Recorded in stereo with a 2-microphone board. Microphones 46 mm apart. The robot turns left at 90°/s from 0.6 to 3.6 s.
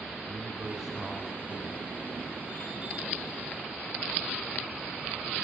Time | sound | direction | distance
0.3 | a man speaking | 165° right | 5.5 m